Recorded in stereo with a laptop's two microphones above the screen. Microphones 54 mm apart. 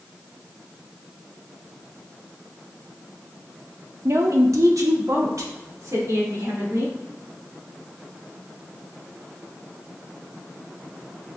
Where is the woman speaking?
55° right (ahead or behind), 0.5 m; by 6.9 s 75° right (ahead or behind), 1.9 m.